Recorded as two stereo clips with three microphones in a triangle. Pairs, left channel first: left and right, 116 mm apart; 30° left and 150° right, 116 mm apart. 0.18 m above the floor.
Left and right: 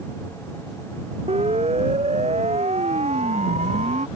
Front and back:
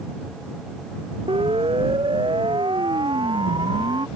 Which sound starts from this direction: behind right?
A siren, at 1.3 s.